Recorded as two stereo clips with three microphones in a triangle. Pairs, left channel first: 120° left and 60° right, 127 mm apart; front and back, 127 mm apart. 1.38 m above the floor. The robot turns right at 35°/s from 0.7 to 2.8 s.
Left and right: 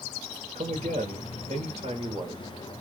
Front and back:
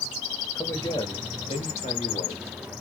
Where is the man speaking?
65° right, 1.1 m; by 2.4 s 5° right, 1.1 m.